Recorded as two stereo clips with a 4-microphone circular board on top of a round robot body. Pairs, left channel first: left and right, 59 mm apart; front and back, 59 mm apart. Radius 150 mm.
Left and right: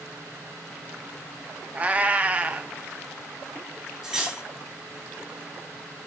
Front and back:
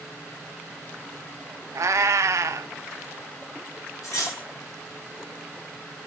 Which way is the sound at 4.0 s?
10° right.